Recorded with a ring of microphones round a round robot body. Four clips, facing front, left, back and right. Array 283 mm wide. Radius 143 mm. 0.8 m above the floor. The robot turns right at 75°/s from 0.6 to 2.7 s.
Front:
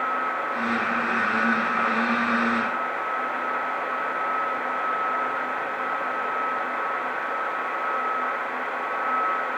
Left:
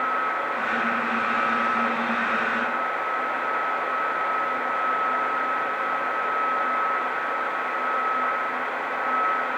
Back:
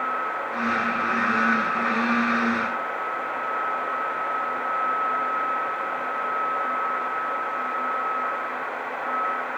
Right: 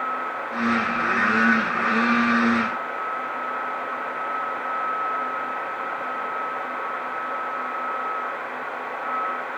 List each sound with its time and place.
Only background noise.